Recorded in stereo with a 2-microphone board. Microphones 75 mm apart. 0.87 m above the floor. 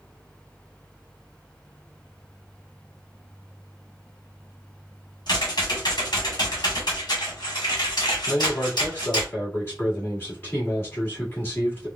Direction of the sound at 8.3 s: 30° left (ahead or behind).